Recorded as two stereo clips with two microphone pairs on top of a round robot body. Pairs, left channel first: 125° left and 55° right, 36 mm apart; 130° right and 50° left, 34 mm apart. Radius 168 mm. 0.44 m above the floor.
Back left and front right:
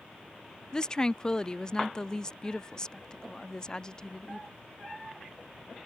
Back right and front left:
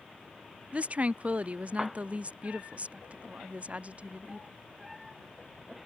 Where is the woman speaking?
70° left.